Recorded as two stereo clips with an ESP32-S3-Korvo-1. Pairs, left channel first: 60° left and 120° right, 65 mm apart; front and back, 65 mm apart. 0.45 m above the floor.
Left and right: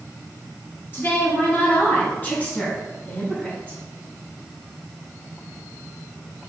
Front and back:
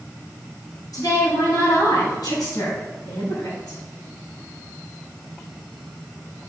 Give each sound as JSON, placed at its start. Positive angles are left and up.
{"t": 0.9, "sound": "a woman speaking", "azimuth_deg": 10, "distance_m": 3.5}